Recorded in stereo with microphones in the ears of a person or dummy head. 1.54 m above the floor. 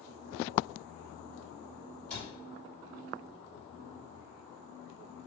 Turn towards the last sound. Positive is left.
turn(degrees=5)  # may be behind; listen again after turning